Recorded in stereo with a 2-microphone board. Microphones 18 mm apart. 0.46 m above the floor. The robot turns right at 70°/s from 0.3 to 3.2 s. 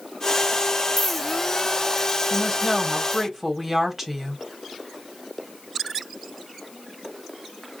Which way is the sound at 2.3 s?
30° right (ahead or behind).